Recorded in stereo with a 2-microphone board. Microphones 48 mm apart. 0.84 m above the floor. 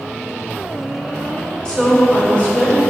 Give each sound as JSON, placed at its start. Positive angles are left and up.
{"t": 1.6, "sound": "a woman speaking", "side_deg": 20, "distance_m": 2.0}